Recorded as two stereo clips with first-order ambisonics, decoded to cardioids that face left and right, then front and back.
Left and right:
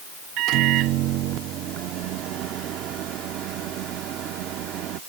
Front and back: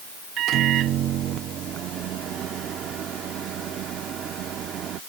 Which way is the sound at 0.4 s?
130° right.